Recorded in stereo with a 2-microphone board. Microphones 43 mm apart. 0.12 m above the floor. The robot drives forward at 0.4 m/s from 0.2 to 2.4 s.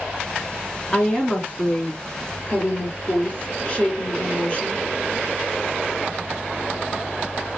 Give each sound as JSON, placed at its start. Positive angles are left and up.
{"t": 0.9, "sound": "a woman speaking", "side_deg": 30, "distance_m": 1.3}